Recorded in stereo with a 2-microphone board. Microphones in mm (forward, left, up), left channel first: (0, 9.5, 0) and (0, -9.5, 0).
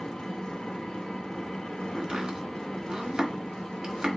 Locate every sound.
0.0 s an engine running: 65° left (ahead or behind), 0.9 m
1.9 s chopping: 55° right (ahead or behind), 1.4 m